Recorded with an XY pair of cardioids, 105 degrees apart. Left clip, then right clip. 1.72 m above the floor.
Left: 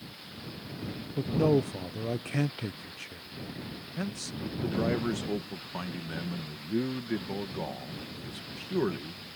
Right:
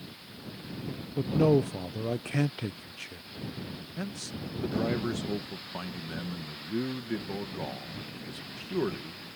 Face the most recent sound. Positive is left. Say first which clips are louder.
# left 2 dB
turn(degrees=10)